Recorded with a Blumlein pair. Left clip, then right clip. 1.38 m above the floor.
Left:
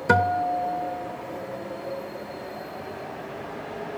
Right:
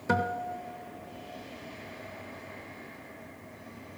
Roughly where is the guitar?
Ahead.